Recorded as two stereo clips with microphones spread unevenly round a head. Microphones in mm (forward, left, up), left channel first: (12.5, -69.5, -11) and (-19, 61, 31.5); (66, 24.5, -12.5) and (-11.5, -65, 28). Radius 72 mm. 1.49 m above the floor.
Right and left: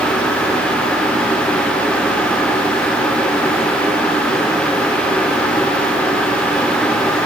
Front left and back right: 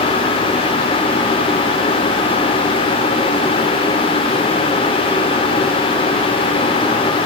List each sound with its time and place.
Only background noise.